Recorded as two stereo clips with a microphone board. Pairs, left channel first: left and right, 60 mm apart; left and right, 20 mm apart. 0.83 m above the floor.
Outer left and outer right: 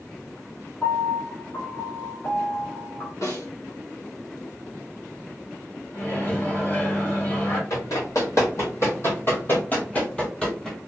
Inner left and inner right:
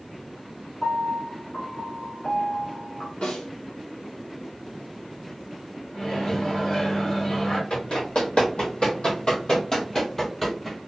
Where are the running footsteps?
65° left (ahead or behind), 1.8 m; by 10.8 s 5° left (ahead or behind), 1.3 m.